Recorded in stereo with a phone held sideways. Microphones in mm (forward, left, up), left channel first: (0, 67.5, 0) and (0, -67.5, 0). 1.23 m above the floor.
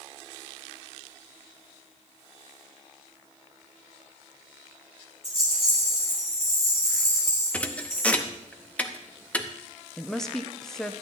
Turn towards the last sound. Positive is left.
turn(degrees=5)  # may be behind; listen again after turning